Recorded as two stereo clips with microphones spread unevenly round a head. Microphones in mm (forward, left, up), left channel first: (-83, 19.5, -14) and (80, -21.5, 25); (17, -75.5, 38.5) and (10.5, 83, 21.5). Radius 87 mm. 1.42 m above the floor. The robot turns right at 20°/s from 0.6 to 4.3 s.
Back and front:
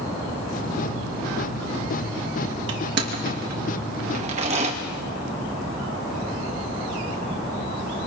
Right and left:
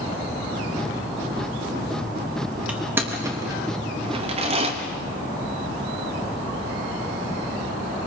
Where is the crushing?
10° left, 3 m; by 4.7 s 40° left, 3 m.